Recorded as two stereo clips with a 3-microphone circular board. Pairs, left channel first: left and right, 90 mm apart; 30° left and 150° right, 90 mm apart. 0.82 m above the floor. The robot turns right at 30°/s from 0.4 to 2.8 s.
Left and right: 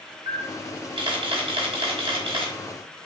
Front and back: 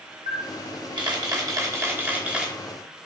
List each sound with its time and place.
0.3 s a camera shutter: 130° right, 0.8 m; by 2.5 s 65° right, 0.8 m